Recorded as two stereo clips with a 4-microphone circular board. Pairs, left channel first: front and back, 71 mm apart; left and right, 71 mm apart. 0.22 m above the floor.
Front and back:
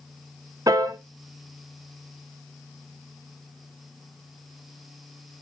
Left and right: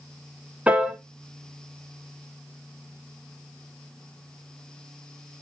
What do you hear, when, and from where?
0.7 s a piano: 160° right, 1.1 m